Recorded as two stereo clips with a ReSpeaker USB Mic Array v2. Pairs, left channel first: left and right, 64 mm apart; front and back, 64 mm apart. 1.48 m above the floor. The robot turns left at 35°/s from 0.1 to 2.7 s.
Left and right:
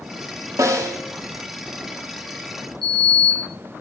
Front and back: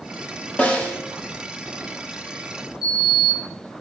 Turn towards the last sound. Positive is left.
turn(degrees=5)